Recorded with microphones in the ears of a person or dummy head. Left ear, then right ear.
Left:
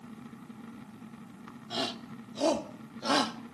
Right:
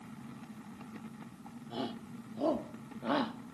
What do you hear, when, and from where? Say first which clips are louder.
1.7 s a shout: left 7 dB; 55° left (ahead or behind); by 3.5 s 80° left